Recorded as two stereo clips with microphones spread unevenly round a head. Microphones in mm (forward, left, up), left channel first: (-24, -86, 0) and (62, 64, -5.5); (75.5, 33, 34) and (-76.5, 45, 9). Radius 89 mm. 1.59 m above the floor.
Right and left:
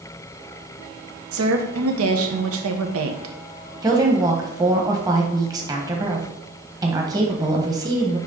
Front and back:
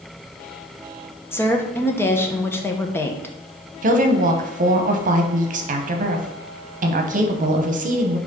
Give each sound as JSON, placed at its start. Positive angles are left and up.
{"t": 1.3, "sound": "a woman speaking", "azimuth_deg": 70, "distance_m": 1.1}
{"t": 3.8, "sound": "a woman speaking", "azimuth_deg": 135, "distance_m": 1.2}